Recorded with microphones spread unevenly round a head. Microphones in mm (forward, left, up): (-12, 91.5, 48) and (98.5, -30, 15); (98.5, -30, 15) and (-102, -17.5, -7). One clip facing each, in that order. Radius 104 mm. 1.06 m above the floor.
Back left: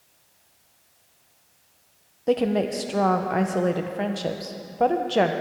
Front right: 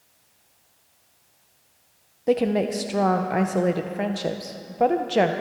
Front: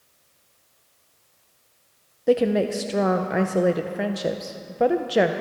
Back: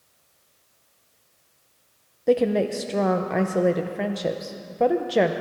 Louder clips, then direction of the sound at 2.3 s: Front right 1 dB, front 1 dB; 95° right.